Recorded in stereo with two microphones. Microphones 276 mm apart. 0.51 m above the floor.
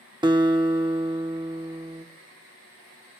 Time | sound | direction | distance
0.2 | a guitar | 15° right (ahead or behind) | 0.8 m